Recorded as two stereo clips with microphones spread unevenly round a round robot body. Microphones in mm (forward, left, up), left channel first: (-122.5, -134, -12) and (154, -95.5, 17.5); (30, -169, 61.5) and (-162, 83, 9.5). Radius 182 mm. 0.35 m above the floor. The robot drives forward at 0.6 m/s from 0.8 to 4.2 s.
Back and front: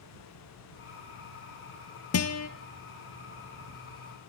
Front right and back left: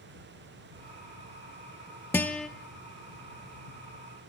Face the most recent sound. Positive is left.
turn(degrees=-155)